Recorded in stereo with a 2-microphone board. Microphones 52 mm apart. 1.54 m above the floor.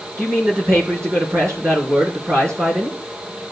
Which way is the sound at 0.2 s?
70° right (ahead or behind).